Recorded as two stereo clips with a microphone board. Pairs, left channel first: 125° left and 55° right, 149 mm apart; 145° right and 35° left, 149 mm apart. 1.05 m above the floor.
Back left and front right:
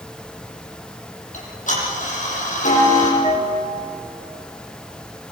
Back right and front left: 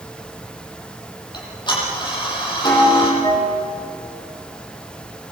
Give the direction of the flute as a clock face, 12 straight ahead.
7 o'clock.